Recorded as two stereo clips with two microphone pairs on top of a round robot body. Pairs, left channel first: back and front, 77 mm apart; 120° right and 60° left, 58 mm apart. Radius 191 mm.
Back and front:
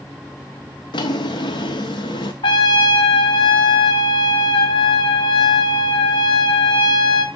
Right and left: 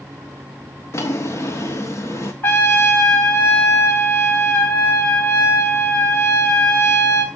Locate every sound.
0.9 s a drawer: 160° right, 1.1 m
2.4 s a trumpet: 170° right, 1.2 m